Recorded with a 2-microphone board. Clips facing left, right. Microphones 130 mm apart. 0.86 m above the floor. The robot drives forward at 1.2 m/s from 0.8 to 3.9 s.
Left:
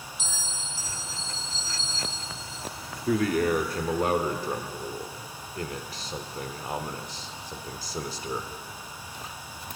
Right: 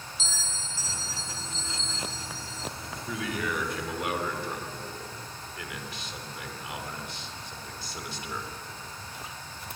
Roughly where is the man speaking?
Left.